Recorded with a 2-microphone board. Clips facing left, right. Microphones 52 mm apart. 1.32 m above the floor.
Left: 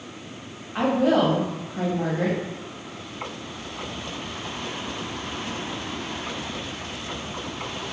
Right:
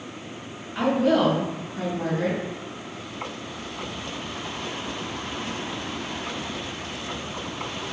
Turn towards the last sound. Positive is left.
turn(degrees=45)  # may be behind; listen again after turning